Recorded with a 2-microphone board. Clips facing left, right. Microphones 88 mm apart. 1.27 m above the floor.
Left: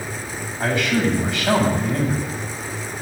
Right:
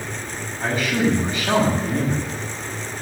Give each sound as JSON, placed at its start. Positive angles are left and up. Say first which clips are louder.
{"t": 0.6, "sound": "a man speaking", "louder": "left 1 dB", "side_deg": 80, "distance_m": 8.5}